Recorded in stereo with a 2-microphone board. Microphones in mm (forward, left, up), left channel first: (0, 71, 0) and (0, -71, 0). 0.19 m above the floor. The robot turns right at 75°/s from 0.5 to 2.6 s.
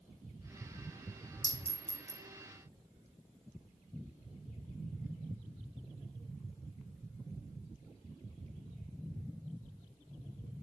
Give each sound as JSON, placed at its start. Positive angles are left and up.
{"t": 1.4, "sound": "a clink", "side_deg": 25, "distance_m": 0.9}